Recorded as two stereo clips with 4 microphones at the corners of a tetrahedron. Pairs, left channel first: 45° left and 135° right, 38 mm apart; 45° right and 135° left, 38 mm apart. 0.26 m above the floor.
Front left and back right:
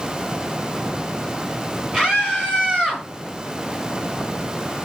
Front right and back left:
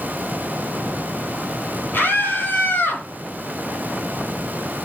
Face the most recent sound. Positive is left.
turn(degrees=-65)